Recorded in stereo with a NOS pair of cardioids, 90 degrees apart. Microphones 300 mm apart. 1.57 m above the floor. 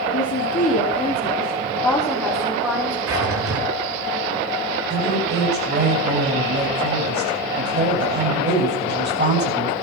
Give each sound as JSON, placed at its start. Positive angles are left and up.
{"t": 0.1, "sound": "a woman speaking", "azimuth_deg": 40, "distance_m": 4.0}
{"t": 3.1, "sound": "a drawer", "azimuth_deg": -50, "distance_m": 8.5}
{"t": 4.9, "sound": "a woman speaking", "azimuth_deg": -35, "distance_m": 9.0}